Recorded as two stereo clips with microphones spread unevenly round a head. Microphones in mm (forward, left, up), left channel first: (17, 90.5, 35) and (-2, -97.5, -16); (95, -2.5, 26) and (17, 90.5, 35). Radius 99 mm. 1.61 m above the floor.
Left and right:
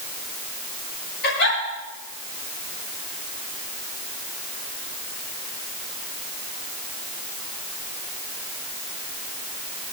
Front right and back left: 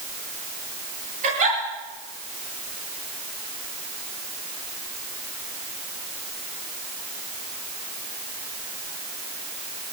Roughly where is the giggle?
Behind left.